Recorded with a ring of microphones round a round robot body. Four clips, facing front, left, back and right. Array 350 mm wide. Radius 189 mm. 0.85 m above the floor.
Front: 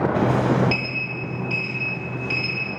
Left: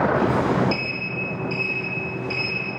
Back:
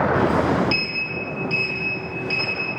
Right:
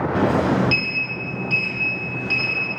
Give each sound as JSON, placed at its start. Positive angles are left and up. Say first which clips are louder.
{"t": 0.1, "sound": "a sliding door", "louder": "right 1 dB, back 1 dB", "azimuth_deg": -100, "distance_m": 5.5}